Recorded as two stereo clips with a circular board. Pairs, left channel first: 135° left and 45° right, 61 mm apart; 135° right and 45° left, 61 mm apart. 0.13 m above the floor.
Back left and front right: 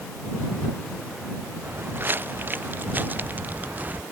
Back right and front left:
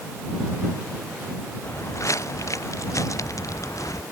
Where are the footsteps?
100° right; by 4.0 s 110° right.